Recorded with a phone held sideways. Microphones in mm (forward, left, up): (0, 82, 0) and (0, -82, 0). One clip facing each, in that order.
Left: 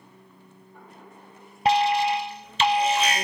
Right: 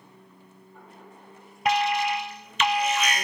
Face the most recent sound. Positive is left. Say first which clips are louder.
# left 3 dB
turn(degrees=30)  # may be behind; listen again after turning